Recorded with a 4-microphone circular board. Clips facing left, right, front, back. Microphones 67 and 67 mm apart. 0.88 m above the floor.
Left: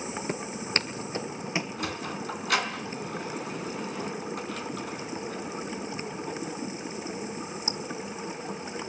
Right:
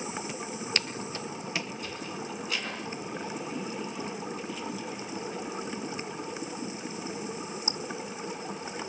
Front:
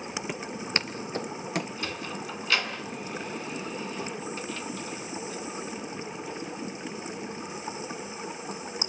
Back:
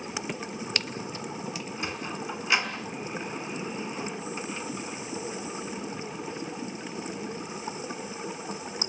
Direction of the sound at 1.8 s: 110° left.